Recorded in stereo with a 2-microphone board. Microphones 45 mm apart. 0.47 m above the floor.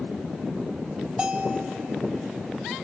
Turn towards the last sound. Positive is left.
turn(degrees=-25)  # may be behind; listen again after turning